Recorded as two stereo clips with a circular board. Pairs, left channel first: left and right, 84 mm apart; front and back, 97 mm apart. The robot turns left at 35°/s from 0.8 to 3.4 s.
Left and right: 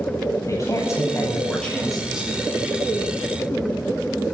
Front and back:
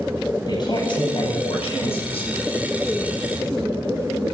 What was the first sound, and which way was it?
A man speaking, 40° left.